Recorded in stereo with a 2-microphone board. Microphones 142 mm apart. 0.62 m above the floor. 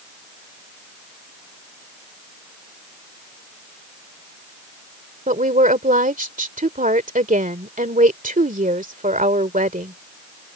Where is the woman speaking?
70° right (ahead or behind).